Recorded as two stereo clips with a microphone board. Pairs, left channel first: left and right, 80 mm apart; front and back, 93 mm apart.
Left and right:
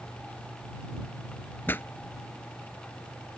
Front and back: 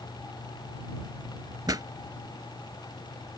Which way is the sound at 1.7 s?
145° left.